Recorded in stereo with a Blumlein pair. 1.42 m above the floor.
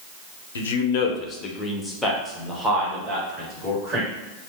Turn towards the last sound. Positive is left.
turn(degrees=-20)